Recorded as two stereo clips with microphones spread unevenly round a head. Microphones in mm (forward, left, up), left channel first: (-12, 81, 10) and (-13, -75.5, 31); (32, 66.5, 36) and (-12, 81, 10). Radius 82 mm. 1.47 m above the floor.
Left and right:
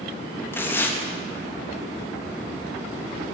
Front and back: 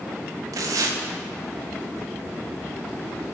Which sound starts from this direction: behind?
Tearing paper, at 0.5 s.